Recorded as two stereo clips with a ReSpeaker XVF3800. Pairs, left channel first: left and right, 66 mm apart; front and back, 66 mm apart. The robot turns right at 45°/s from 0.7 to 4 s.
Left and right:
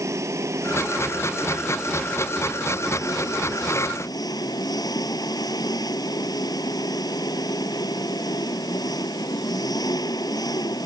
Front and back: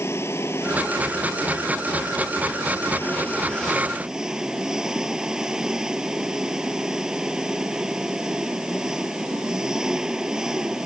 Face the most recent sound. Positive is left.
turn(degrees=100)